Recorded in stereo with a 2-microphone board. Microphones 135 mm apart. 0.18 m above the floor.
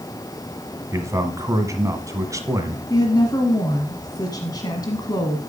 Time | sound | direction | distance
0.9 | a man speaking | 25° right (ahead or behind) | 1.5 m
2.9 | a woman speaking | 30° left (ahead or behind) | 1.4 m